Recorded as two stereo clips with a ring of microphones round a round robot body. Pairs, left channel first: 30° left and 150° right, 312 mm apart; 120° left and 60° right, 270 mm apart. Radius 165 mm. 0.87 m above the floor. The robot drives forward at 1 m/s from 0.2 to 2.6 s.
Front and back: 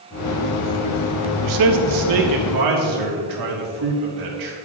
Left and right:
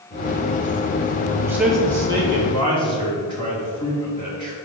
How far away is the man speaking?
About 0.7 m.